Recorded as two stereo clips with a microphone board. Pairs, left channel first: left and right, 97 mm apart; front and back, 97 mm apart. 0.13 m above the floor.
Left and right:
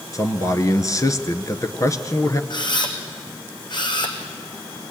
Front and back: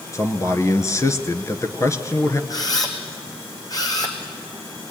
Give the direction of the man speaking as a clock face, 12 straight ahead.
10 o'clock.